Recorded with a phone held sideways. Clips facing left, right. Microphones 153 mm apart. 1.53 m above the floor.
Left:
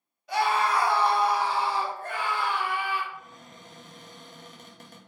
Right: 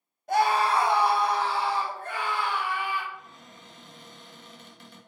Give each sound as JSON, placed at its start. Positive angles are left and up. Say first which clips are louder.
{"t": 0.3, "sound": "a scream", "louder": "right 2 dB", "side_deg": -45, "distance_m": 0.7}
{"t": 3.1, "sound": "a cupboard door", "louder": "left 1 dB", "side_deg": 45, "distance_m": 0.7}